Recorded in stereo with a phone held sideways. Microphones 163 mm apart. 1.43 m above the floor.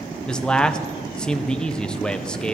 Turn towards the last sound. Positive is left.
turn(degrees=5)  # may be behind; listen again after turning